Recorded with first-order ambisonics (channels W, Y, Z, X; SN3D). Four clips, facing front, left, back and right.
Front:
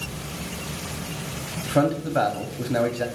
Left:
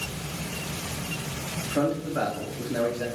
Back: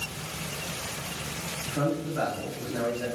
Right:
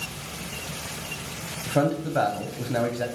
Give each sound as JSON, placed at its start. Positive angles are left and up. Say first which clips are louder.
{"t": 1.7, "sound": "a man speaking", "louder": "right 3 dB, front 7 dB", "azimuth_deg": -35, "distance_m": 0.7}